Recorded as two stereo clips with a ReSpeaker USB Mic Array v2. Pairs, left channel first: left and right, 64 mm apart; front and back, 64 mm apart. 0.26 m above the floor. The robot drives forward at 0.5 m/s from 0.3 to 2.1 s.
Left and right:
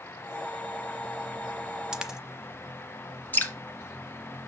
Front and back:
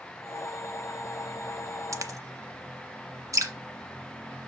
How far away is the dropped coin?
About 0.6 m.